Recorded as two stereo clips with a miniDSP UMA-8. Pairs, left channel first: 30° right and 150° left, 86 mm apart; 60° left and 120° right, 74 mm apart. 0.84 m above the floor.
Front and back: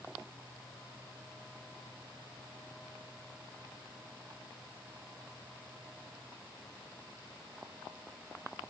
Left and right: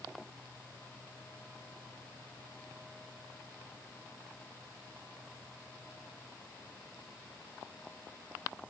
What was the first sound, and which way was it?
Only background noise.